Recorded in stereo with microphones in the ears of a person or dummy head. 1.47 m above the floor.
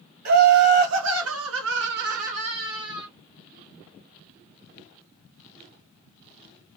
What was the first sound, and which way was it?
Laughter, 50° right (ahead or behind).